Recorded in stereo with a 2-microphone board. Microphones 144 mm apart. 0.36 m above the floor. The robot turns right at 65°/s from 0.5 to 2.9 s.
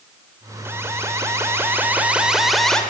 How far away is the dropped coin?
I don't hear a dropped coin.